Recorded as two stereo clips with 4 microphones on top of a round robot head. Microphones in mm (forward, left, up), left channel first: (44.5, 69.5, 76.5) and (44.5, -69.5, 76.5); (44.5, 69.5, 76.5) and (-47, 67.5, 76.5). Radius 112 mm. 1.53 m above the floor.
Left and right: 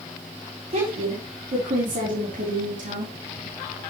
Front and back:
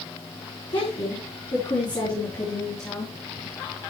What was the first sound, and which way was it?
A woman speaking, 50° right.